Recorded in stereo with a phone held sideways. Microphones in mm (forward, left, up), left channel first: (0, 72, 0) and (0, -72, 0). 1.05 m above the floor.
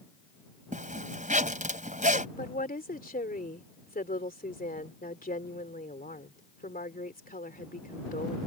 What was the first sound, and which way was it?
A zipper, 60° right (ahead or behind).